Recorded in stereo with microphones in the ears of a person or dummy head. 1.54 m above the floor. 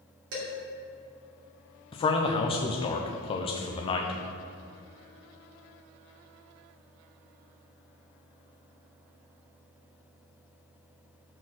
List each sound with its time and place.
0.3 s dishes clattering: 65° right (ahead or behind), 2.5 m
1.9 s a man speaking: 30° left (ahead or behind), 0.8 m